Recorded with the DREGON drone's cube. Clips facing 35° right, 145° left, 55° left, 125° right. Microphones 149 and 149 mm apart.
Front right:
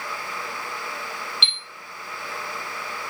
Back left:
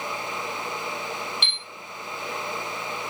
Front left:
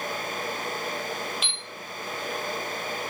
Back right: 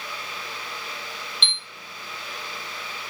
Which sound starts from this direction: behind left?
A chime, at 1.4 s.